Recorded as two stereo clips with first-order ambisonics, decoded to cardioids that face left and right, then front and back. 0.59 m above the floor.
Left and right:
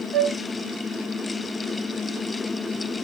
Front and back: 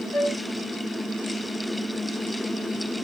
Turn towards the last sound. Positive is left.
turn(degrees=-50)